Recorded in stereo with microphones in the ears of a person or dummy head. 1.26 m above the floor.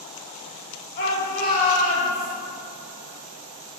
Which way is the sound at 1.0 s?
55° left (ahead or behind).